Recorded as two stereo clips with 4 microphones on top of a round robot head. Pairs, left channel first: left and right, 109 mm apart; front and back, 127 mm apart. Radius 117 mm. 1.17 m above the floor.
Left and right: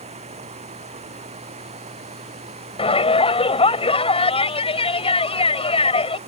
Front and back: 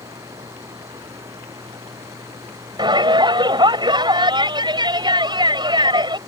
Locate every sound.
0.0 s running water: 110° right
2.8 s a shout: 125° left